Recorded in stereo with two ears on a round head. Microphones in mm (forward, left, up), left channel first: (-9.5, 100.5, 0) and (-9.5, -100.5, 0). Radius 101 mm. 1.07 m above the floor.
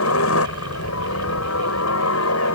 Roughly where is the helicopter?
Left.